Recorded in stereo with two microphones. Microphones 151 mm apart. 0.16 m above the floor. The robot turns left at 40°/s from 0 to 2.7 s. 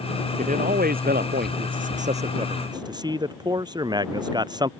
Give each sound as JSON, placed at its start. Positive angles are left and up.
{"t": 0.4, "sound": "a man speaking", "azimuth_deg": -60}